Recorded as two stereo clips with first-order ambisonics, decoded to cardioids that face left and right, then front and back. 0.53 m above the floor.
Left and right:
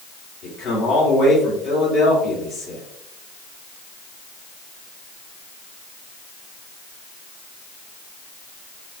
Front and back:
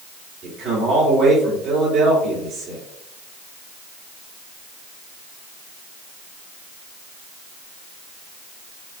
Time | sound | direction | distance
0.4 | a man speaking | 125° left | 2 m